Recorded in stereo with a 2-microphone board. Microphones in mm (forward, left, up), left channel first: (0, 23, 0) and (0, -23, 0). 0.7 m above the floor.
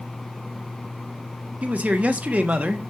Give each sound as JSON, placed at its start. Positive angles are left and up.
{"t": 1.6, "sound": "a man speaking", "side_deg": -30, "distance_m": 1.1}